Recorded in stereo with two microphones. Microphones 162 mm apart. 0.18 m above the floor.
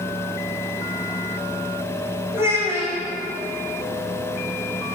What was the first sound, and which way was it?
A child speaking, 15° right (ahead or behind).